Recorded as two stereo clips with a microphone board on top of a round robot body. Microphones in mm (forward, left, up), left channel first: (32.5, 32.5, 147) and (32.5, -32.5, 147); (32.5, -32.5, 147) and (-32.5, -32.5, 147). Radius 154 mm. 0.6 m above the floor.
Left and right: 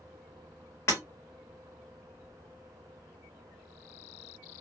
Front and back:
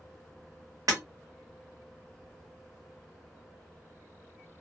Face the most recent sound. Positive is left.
turn(degrees=140)